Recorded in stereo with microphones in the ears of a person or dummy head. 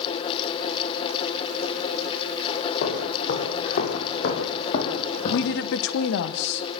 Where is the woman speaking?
65° left (ahead or behind), 0.9 m.